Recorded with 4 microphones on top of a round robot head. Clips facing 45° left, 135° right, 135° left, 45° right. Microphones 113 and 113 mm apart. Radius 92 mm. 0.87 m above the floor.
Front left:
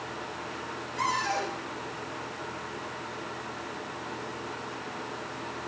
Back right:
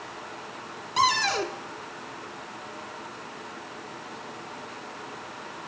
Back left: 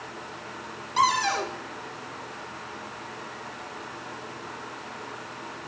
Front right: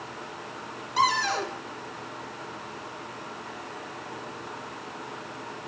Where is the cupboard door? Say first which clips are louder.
Back right 5 dB, back left 1 dB; 145° right, 1.6 m.